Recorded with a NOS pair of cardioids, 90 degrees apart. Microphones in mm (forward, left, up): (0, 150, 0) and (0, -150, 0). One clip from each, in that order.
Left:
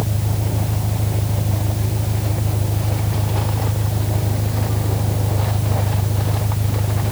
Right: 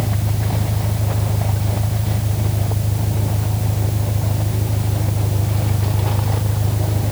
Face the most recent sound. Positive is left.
turn(degrees=-5)